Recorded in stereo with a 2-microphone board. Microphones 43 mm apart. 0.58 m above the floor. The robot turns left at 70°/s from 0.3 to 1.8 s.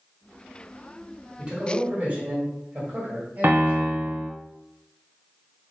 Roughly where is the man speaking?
Right.